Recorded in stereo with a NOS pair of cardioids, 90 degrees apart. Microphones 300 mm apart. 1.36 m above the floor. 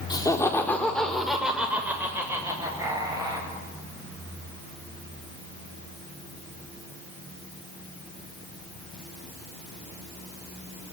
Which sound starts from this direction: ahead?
Laughter, at 0.1 s.